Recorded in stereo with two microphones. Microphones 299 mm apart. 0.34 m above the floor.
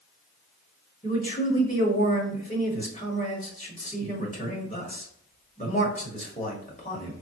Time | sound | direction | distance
1.0 | a man speaking | 25° left (ahead or behind) | 1.4 m